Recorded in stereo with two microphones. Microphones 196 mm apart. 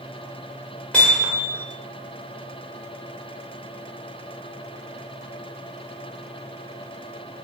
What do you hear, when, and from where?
0.9 s hammering: 5° left (ahead or behind), 1.8 m